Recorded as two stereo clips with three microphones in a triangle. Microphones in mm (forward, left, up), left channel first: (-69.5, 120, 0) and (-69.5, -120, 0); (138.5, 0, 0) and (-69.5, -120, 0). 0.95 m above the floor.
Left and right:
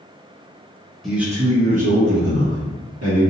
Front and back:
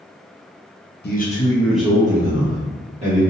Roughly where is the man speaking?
Ahead.